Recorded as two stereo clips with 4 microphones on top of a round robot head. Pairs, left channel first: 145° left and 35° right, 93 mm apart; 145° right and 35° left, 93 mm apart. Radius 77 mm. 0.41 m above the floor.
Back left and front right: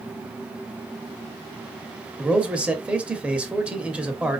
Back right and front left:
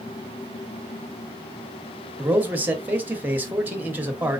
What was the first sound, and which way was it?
A man speaking, 15° left.